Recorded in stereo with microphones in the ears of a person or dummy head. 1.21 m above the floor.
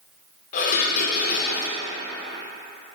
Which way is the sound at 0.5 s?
50° left (ahead or behind).